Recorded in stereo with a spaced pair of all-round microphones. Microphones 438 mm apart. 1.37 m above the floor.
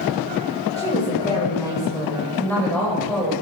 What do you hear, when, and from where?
0.8 s a woman speaking: 10° left (ahead or behind), 7 m; by 3.3 s centre (ahead or behind), 8 m